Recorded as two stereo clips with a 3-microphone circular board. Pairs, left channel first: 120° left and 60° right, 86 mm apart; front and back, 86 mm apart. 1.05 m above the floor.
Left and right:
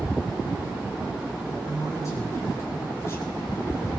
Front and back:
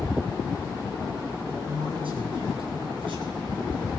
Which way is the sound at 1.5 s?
175° left.